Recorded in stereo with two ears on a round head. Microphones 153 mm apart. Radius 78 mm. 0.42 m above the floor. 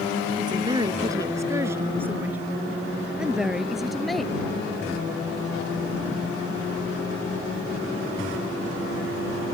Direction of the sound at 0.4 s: 25° right (ahead or behind).